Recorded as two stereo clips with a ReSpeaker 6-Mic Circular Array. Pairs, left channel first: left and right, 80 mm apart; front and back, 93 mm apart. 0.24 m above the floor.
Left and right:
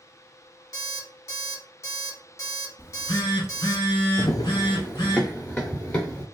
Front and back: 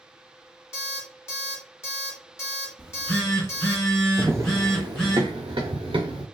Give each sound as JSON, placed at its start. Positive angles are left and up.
{"t": 0.7, "sound": "an alarm clock", "azimuth_deg": 50, "distance_m": 1.3}
{"t": 2.8, "sound": "a phone buzzing", "azimuth_deg": 80, "distance_m": 1.0}
{"t": 4.2, "sound": "running footsteps", "azimuth_deg": 110, "distance_m": 0.5}